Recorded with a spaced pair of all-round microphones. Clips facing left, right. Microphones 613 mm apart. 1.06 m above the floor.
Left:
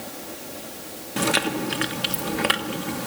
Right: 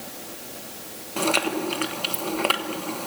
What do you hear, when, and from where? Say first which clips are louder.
1.2 s chewing: even; 50° left (ahead or behind), 1.0 m